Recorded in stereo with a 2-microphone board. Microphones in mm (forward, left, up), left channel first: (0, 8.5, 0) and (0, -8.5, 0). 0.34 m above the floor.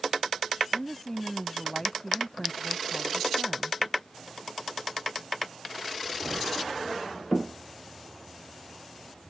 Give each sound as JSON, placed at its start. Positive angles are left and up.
{"t": 0.7, "sound": "a woman speaking", "side_deg": 20}